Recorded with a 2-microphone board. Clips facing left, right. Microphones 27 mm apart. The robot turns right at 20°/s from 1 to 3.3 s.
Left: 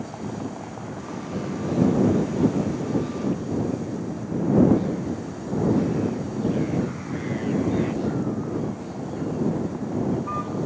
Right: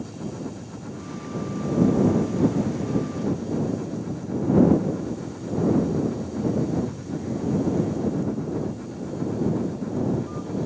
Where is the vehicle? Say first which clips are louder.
Left 1 dB; 75° left; by 10.7 s 120° left.